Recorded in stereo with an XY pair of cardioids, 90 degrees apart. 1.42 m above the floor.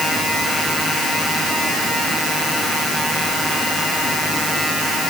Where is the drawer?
I don't hear a drawer.